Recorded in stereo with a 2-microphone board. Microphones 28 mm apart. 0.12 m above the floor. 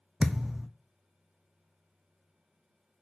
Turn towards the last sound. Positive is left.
turn(degrees=-30)  # may be behind; listen again after turning